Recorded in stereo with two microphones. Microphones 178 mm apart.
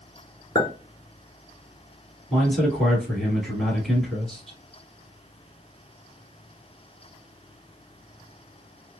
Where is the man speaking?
Centre (ahead or behind), 1.5 m.